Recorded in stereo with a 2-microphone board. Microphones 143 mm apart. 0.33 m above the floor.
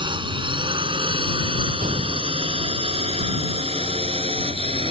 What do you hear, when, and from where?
0.0 s a drone: 35° right (ahead or behind); by 4.9 s 45° right (ahead or behind)
1.8 s a gunshot: 80° right